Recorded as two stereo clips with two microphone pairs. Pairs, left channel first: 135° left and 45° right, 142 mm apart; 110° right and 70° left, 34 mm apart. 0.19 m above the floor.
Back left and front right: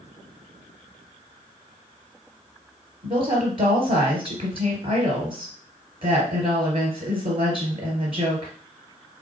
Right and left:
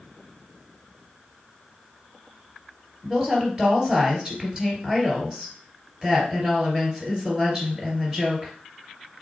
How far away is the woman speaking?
About 2.5 m.